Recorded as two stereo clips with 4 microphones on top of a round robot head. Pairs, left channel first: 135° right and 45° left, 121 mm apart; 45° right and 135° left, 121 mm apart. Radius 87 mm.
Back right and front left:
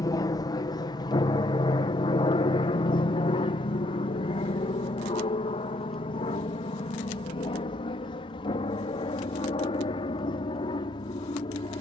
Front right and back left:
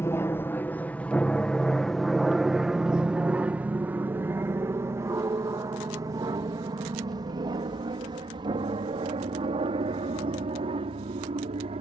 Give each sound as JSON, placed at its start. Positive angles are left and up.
{"t": 0.0, "sound": "an aircraft", "azimuth_deg": -100}